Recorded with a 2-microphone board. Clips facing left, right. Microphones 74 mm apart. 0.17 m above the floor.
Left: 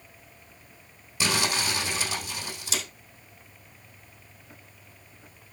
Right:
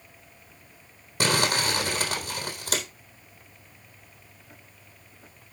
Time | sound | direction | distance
1.2 | crumpling | 55° right (ahead or behind) | 3.5 m